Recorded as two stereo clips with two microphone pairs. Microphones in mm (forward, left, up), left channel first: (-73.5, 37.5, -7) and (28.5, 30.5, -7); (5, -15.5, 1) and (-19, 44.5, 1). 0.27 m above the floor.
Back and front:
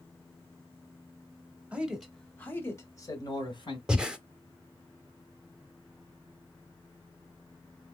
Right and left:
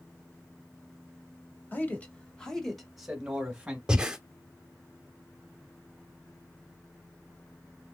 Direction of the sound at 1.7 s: 70° right.